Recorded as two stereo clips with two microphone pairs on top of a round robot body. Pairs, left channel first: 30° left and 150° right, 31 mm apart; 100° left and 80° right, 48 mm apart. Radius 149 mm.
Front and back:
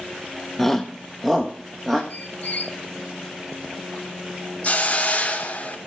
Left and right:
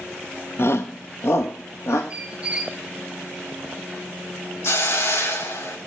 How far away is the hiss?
About 3 m.